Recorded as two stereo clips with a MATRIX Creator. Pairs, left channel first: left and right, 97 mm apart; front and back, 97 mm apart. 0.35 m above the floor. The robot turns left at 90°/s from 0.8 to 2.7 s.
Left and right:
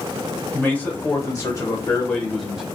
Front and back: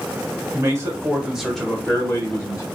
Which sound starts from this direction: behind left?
A man speaking, at 0.5 s.